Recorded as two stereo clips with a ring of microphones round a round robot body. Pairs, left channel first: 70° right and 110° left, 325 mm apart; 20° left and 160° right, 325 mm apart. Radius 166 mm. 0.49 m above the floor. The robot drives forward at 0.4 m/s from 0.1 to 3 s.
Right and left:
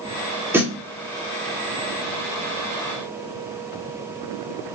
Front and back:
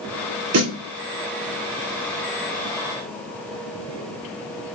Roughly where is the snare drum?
Behind.